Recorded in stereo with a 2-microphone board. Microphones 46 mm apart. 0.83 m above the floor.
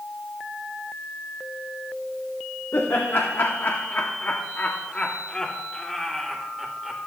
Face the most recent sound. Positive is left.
turn(degrees=-5)  # may be behind; listen again after turning